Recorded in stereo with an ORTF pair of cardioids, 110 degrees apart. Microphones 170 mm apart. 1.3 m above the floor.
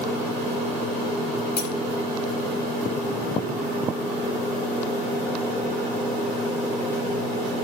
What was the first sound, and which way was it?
Cutlery clinking, 55° left.